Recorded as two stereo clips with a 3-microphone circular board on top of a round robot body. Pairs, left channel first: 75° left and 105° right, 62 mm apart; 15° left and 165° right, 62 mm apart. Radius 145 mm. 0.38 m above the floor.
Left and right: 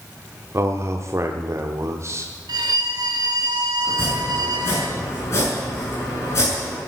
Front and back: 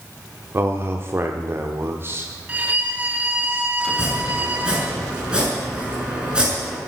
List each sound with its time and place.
0.5 s a man speaking: 130° right, 1.2 m
2.5 s a violin: 100° right, 1.3 m
3.9 s chopping: 120° left, 6.5 m